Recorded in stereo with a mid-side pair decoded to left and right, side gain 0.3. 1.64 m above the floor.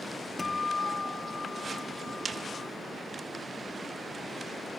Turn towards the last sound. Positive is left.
turn(degrees=30)